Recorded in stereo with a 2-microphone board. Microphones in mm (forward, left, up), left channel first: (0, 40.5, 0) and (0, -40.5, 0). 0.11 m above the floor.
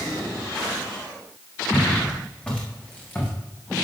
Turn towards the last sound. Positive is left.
turn(degrees=20)  # may be behind; listen again after turning